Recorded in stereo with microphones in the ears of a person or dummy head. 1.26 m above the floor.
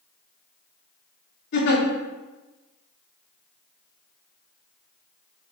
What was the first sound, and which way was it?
A giggle, 60° left (ahead or behind).